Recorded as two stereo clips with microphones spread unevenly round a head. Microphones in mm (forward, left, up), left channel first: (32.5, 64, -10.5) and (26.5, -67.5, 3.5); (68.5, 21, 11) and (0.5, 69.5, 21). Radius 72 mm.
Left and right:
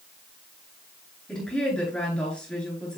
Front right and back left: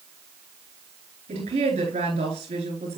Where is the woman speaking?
175° left, 4.5 m.